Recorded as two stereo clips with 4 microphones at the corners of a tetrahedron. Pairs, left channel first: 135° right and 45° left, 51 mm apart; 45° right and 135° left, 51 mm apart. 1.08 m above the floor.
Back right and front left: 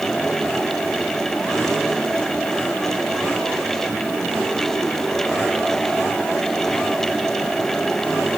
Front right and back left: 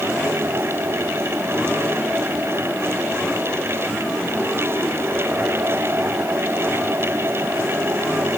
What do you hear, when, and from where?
Only background noise.